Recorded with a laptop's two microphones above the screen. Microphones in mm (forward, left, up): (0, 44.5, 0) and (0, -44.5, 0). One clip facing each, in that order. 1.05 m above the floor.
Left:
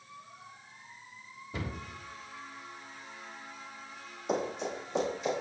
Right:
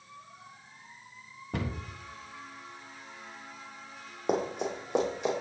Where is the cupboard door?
70° right (ahead or behind), 1.4 m.